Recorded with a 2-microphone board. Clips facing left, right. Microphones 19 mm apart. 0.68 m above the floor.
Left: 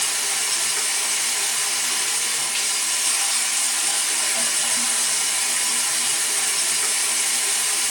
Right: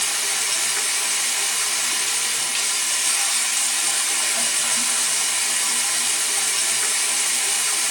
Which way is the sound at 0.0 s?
15° right (ahead or behind).